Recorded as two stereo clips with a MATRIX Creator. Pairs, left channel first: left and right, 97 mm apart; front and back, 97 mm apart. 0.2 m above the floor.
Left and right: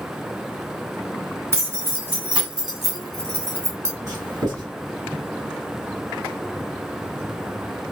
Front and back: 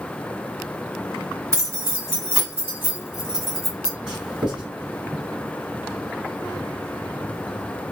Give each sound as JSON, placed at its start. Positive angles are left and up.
{"t": 1.5, "sound": "keys jangling", "azimuth_deg": -135, "distance_m": 1.4}
{"t": 4.1, "sound": "writing", "azimuth_deg": -105, "distance_m": 2.0}